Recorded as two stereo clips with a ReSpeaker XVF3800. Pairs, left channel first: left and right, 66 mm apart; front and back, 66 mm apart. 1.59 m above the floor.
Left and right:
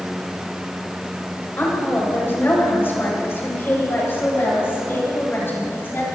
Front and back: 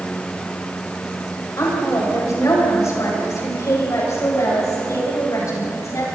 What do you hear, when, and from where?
1.6 s a woman speaking: 35° left, 7.5 m